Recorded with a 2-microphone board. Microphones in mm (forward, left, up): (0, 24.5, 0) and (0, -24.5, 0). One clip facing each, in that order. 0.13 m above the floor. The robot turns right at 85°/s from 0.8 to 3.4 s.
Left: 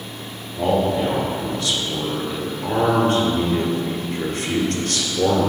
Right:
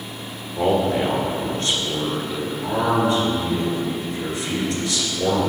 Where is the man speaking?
130° right, 1.8 m; by 5.5 s 90° left, 1.8 m.